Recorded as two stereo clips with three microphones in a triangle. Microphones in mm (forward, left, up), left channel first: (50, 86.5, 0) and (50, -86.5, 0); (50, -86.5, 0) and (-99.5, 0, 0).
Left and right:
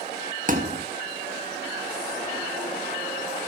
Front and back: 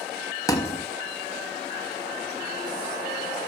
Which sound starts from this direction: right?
A thud, at 0.5 s.